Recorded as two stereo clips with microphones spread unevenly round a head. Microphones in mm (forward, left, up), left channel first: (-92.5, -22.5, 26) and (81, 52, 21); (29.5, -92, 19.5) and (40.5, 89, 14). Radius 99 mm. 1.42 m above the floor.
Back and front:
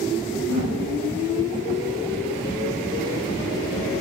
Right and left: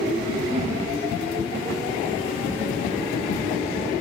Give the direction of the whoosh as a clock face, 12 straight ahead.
11 o'clock.